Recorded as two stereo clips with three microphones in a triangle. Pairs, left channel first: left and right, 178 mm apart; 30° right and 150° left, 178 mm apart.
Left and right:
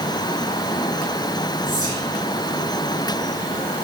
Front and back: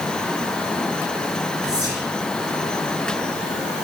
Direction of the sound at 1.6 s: 155° right.